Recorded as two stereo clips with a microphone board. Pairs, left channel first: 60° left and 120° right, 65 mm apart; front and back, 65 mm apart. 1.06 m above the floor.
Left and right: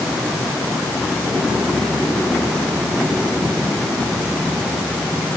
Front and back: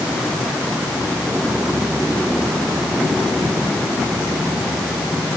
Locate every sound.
Only background noise.